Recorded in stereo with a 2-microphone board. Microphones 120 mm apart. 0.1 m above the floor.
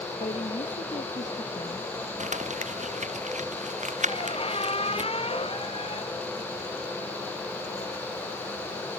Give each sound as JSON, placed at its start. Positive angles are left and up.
{"t": 0.2, "sound": "a woman speaking", "side_deg": 75}
{"t": 2.2, "sound": "crumpling", "side_deg": -75}
{"t": 4.1, "sound": "a squeak", "side_deg": 50}